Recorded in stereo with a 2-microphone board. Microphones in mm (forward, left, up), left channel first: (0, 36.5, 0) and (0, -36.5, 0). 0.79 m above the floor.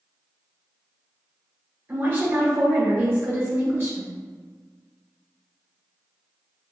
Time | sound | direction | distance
1.9 | a woman speaking | 30° right (ahead or behind) | 1.1 m